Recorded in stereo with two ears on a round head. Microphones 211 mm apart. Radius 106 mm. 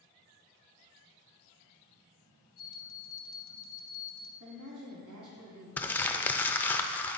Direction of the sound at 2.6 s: 70° left (ahead or behind).